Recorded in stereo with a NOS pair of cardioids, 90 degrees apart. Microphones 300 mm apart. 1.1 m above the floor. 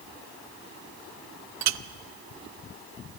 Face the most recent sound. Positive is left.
turn(degrees=-70)